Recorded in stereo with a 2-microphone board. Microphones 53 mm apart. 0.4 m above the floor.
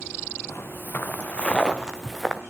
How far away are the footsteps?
About 1.8 m.